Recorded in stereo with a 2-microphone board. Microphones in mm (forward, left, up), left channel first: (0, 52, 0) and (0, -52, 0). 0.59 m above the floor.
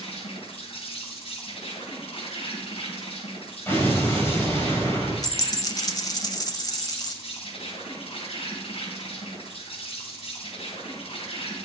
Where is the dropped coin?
40° left (ahead or behind), 0.8 m.